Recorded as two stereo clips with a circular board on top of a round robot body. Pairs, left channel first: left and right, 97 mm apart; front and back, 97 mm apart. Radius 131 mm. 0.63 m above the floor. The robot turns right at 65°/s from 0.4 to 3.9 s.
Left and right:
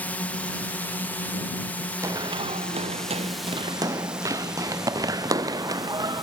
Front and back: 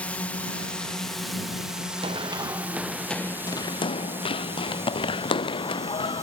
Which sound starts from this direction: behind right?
Running footsteps, at 2.0 s.